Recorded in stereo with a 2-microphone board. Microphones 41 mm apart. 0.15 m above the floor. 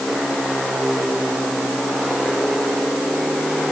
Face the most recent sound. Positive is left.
No sound to turn to.